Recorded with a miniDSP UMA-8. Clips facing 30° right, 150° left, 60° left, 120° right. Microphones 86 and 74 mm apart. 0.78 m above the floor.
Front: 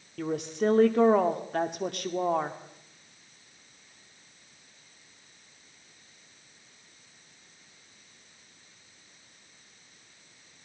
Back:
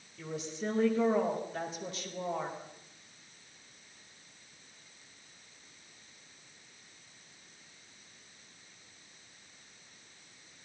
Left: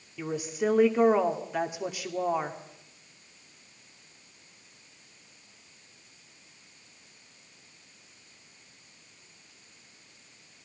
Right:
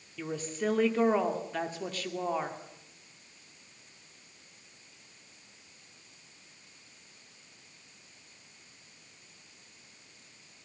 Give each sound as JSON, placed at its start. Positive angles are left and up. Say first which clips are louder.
{"t": 0.2, "sound": "a woman speaking", "louder": "front 10 dB, left 4 dB", "azimuth_deg": -15, "distance_m": 2.5}